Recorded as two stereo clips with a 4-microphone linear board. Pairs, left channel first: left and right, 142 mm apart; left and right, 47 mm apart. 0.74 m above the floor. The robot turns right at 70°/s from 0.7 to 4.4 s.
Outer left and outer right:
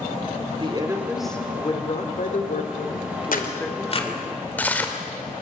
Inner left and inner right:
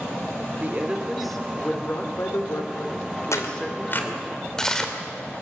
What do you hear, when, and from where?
0.6 s a woman speaking: 40° right, 2.5 m; by 4.3 s 150° right, 2.5 m
3.3 s tearing paper: 75° left (ahead or behind), 2.5 m; by 4.9 s 10° left (ahead or behind), 2.5 m